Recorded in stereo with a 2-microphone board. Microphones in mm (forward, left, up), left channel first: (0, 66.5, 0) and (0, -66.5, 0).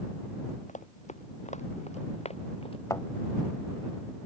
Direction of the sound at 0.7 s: 70° left (ahead or behind).